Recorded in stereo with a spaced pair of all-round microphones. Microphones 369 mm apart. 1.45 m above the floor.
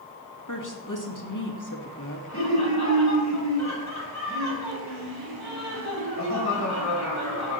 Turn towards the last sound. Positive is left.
turn(degrees=45)  # may be behind; listen again after turning